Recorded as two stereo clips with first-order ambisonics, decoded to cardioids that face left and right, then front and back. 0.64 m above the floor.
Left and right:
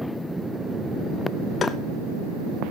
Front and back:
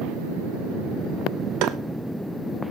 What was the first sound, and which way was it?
Tapping, 160° left.